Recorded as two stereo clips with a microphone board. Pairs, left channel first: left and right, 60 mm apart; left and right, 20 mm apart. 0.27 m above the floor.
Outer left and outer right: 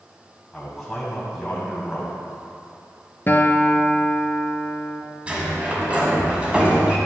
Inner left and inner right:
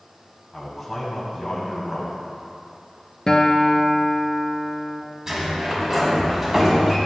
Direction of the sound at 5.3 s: 20° right (ahead or behind).